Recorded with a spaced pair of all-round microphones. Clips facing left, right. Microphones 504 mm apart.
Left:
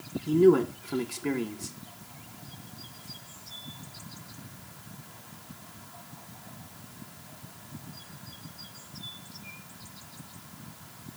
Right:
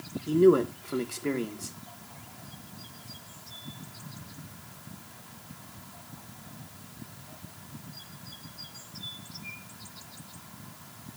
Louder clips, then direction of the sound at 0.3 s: Even; 10° left (ahead or behind).